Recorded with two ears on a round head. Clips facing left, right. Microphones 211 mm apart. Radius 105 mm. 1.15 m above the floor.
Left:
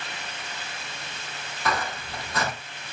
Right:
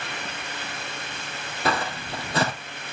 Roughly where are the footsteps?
Right.